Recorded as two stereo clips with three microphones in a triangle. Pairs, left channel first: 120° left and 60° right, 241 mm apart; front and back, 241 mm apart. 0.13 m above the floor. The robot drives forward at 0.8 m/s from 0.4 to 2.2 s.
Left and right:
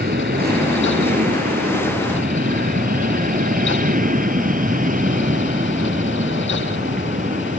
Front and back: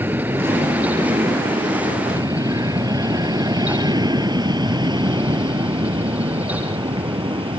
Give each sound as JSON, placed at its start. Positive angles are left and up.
{"t": 0.0, "sound": "an aircraft", "azimuth_deg": -100}